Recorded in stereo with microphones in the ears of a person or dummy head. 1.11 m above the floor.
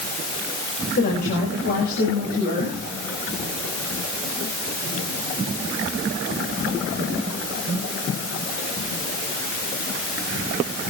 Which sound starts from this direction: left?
A woman speaking, at 1.0 s.